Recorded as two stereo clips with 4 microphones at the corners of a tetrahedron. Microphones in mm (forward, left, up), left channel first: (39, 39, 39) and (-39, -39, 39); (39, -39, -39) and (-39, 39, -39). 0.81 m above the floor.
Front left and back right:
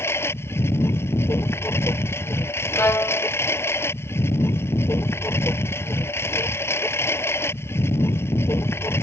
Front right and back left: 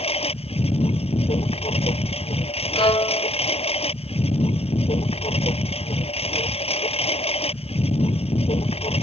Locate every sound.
0.0 s a lawn mower: 20° right
2.8 s a violin: 20° right